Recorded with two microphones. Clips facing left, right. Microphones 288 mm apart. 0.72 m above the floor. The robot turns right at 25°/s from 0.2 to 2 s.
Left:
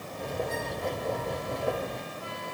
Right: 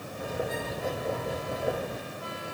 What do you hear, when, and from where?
Only background noise.